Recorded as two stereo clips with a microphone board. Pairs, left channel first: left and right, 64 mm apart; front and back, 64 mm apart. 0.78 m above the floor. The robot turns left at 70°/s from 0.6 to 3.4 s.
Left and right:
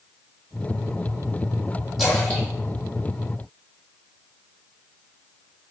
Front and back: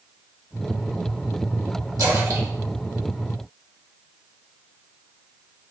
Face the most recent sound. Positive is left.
turn(degrees=85)